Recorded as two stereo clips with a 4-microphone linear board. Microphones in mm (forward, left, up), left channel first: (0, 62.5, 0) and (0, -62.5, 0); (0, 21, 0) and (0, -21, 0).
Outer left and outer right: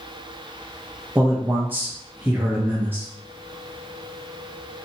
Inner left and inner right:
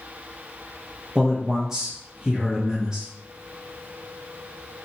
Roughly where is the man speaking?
Centre.